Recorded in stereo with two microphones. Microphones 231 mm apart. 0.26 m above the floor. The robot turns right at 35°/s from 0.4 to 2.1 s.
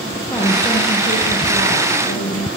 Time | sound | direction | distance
0.1 | a woman speaking | 15° left | 7 m